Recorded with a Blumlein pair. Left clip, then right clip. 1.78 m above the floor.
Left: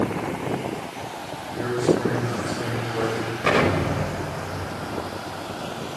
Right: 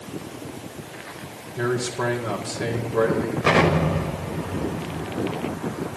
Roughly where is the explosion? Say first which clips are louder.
Right 1 dB; ahead.